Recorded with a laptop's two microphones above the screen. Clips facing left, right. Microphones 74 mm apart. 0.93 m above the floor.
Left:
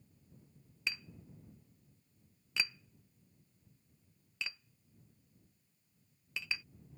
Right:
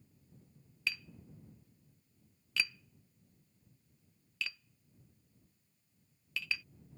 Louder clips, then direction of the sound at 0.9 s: Right 2 dB; 20° left (ahead or behind).